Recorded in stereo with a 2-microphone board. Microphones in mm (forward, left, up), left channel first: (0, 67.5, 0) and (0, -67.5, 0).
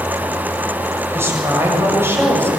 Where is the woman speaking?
20° right (ahead or behind), 6.5 m.